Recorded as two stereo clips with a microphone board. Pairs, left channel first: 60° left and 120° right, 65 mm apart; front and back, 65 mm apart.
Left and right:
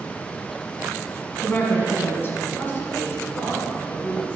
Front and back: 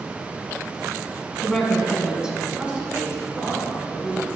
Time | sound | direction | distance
1.4 | a woman speaking | 80° left | 1.3 m